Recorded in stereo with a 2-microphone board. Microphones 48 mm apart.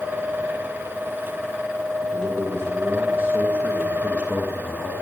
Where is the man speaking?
50° right (ahead or behind), 2.5 m; by 4.9 s 20° right (ahead or behind), 1.9 m.